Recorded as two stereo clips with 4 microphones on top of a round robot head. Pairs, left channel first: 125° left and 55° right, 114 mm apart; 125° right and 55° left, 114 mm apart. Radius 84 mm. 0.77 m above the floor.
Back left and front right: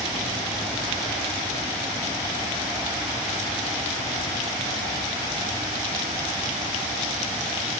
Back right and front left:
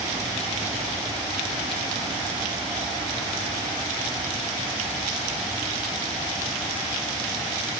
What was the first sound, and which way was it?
Only background noise.